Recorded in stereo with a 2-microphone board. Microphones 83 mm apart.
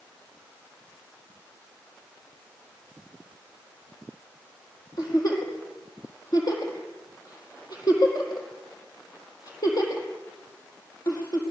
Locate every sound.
5.0 s a giggle: 50° left (ahead or behind), 4.5 m